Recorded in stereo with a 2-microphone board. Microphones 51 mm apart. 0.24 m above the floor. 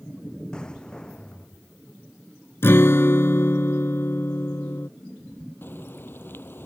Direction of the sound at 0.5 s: 15° left (ahead or behind).